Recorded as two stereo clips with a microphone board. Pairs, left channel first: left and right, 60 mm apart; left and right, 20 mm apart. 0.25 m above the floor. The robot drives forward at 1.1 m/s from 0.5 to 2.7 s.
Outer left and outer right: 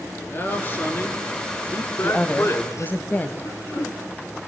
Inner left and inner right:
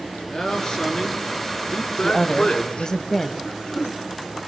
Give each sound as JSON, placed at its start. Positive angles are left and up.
{"t": 0.3, "sound": "a man speaking", "side_deg": 35, "distance_m": 4.5}
{"t": 2.0, "sound": "a woman speaking", "side_deg": 30, "distance_m": 1.5}
{"t": 3.4, "sound": "throat clearing", "side_deg": 45, "distance_m": 4.0}